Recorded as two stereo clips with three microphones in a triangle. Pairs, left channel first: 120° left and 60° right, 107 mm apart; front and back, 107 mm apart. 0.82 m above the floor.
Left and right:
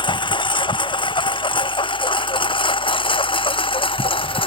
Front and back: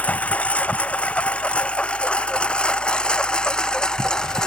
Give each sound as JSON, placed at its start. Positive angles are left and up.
{"t": 0.0, "sound": "a lawn mower", "azimuth_deg": 80}